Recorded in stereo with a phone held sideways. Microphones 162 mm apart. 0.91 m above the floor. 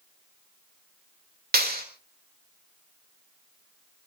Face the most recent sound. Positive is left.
turn(degrees=-70)  # may be behind; listen again after turning